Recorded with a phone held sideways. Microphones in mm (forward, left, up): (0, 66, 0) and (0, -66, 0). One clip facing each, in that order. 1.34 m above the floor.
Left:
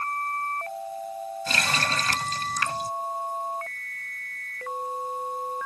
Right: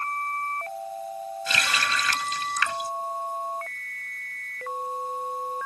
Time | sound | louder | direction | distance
1.5 | a running tap | even | 40° left (ahead or behind) | ?